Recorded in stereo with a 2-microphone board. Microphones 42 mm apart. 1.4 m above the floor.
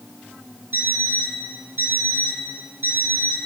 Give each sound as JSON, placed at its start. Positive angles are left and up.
{"t": 0.7, "sound": "an alarm clock", "side_deg": -70, "distance_m": 2.5}